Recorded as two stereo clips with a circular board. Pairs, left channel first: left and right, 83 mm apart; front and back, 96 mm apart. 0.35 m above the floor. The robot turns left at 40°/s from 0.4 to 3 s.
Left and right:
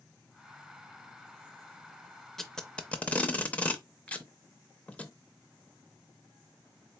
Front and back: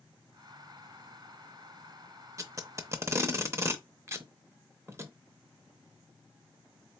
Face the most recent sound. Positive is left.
turn(degrees=150)